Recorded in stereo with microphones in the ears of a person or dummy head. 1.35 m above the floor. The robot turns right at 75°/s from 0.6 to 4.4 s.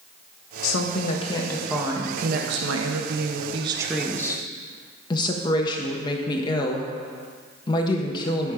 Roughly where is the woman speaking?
Left.